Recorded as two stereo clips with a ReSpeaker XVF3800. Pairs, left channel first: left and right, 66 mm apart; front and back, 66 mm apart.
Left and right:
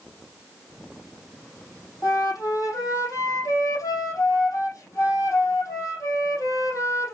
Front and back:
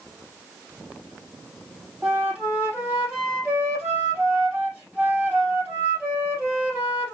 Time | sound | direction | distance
2.0 | a flute | 110° left | 4 m